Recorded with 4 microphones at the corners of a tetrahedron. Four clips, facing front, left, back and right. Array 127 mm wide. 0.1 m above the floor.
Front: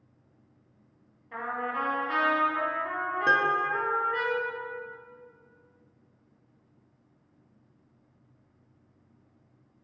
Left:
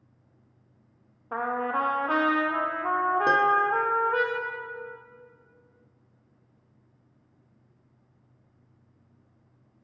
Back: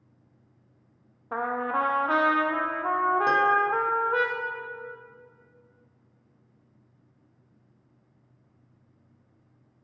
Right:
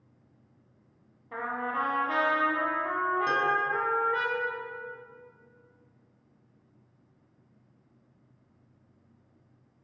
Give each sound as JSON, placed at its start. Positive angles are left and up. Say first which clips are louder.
{"t": 1.3, "sound": "a trumpet", "louder": "left 4 dB, back 5 dB", "azimuth_deg": 140, "distance_m": 1.1}
{"t": 3.3, "sound": "a piano", "louder": "left 5 dB, even", "azimuth_deg": 75, "distance_m": 0.8}